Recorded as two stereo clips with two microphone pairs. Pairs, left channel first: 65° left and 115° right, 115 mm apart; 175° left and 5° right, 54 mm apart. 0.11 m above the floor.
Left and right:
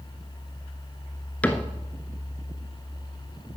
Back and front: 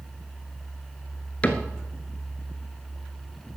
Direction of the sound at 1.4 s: 135° left.